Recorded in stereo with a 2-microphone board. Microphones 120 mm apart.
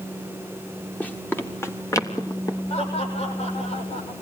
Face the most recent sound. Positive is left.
turn(degrees=55)  # may be behind; listen again after turning